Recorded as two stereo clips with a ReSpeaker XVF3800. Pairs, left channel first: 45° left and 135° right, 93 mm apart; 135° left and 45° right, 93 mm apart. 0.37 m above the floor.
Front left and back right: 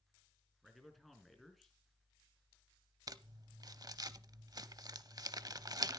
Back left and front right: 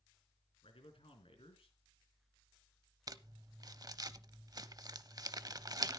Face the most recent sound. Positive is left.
turn(degrees=-90)